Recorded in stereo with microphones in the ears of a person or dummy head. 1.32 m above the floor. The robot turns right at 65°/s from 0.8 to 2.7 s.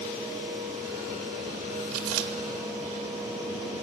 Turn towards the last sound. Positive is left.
turn(degrees=-45)  # may be behind; listen again after turning